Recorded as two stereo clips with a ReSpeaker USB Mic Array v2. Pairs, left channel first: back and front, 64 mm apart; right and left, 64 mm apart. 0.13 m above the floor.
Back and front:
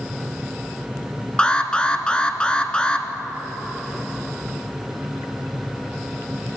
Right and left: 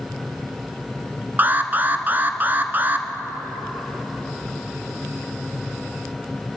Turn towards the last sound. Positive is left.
turn(degrees=120)